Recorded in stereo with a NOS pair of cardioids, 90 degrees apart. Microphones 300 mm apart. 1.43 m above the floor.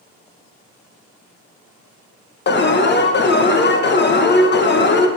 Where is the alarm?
35° left, 1.3 m.